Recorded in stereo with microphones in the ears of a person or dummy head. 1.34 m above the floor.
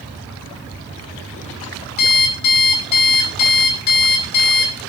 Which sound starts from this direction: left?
An alarm clock, at 2.0 s.